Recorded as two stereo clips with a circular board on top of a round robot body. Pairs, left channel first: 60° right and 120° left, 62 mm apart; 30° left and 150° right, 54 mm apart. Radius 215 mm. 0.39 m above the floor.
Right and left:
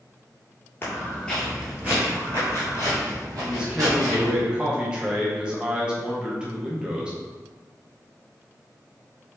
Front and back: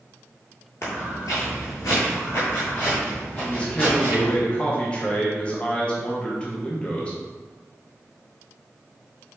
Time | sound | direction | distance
0.8 | footsteps | 5° right | 0.8 m
3.4 | a man speaking | 65° left | 1.1 m